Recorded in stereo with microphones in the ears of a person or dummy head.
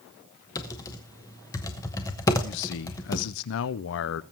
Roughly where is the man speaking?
Left.